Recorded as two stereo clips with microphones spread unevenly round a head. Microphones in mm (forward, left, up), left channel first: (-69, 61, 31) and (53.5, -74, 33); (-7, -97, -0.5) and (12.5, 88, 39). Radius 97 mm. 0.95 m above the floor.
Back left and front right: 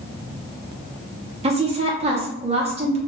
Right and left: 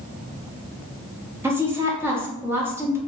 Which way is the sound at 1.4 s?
Straight ahead.